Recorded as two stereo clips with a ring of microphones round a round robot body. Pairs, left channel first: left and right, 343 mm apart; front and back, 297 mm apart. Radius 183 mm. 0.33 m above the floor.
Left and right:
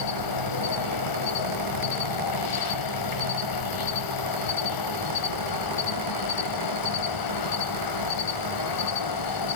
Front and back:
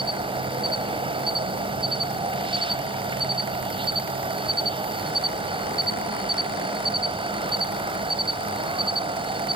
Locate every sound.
0.0 s an insect: 105° left, 1.8 m